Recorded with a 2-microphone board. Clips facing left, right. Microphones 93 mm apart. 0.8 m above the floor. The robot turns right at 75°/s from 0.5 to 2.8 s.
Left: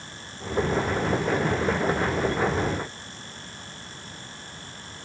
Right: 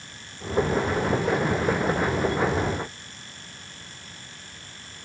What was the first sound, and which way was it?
Only background noise.